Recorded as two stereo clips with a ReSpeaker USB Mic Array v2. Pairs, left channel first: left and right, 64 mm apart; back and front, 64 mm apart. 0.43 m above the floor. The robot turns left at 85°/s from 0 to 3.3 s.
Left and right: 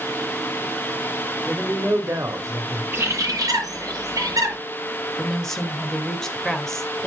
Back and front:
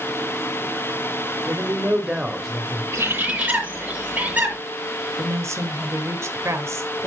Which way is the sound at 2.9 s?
35° right.